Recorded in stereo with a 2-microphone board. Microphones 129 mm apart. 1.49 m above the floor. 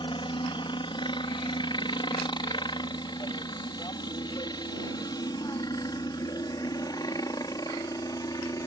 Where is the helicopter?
40° left (ahead or behind); by 8.7 s 30° left (ahead or behind).